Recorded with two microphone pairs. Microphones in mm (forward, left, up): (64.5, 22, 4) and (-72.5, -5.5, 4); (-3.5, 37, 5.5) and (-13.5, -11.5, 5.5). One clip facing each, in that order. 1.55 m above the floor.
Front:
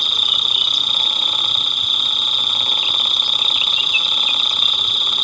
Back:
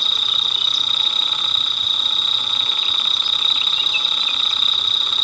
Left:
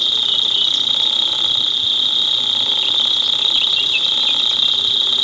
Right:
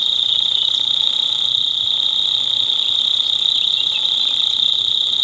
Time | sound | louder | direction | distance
0.0 | an insect | front 2 dB, left 1 dB | 85° left | ?